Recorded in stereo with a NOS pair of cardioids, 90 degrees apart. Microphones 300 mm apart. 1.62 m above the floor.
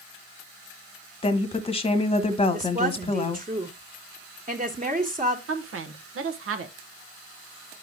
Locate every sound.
1.2 s a woman speaking: 20° left, 1.5 m
2.5 s a woman speaking: 25° right, 2 m
5.5 s a woman speaking: 45° right, 1.5 m